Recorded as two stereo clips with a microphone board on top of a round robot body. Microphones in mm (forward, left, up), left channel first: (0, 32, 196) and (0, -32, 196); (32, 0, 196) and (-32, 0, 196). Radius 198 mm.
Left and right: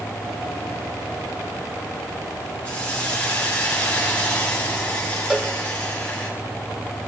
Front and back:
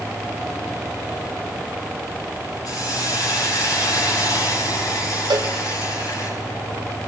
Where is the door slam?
I don't hear a door slam.